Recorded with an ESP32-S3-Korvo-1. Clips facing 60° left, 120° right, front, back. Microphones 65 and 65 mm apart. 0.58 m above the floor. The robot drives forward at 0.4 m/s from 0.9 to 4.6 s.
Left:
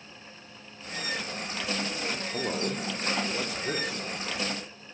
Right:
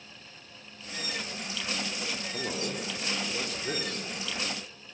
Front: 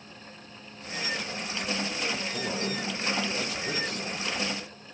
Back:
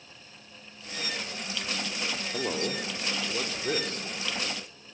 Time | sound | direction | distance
2.3 | a man speaking | 125° left | 1.7 m